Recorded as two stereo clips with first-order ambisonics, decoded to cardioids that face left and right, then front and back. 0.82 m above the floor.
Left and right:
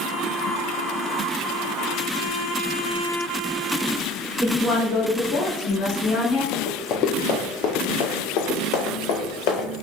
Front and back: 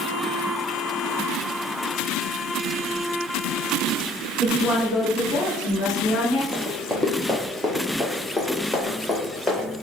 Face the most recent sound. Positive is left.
turn(degrees=85)